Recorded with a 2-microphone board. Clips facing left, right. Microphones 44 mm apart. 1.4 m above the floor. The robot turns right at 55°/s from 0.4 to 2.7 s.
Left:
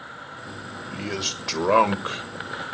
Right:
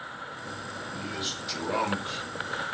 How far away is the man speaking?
About 1.4 m.